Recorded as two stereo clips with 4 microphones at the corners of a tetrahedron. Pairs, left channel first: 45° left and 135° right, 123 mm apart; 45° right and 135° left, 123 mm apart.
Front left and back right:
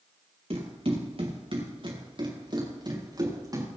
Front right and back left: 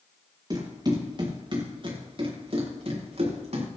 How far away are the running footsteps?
About 6 m.